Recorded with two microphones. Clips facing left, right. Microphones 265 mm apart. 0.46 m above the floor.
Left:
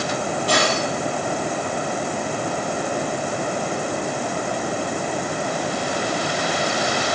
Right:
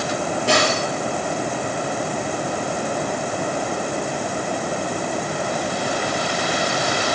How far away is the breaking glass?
About 5 m.